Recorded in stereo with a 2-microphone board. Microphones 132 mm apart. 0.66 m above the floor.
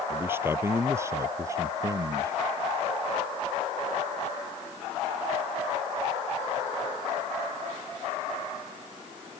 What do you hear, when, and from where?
0.1 s a man speaking: 15° right (ahead or behind); by 2.3 s 25° right (ahead or behind)